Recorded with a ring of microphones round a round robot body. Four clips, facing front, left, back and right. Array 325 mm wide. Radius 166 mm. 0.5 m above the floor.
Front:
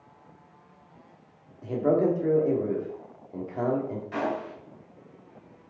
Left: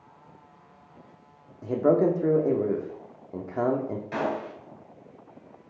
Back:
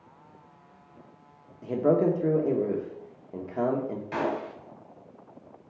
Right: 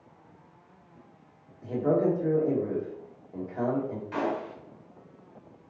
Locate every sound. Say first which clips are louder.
1.6 s a man speaking: left 4 dB, even; 115° left, 1.2 m
4.1 s a gunshot: left 1 dB, back 1 dB; 135° left, 2.5 m